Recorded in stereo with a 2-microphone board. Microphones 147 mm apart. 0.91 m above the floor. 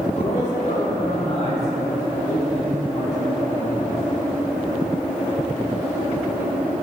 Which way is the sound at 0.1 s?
60° left (ahead or behind).